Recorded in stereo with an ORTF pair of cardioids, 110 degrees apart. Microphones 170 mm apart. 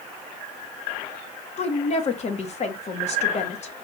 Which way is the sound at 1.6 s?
40° left.